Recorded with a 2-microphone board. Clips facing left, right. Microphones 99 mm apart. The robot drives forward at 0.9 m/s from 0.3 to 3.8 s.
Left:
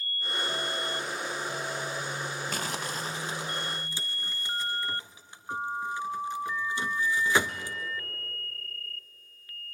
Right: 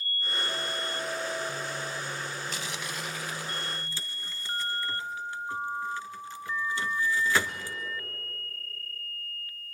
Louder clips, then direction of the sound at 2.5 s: Left 3 dB; 50° left (ahead or behind).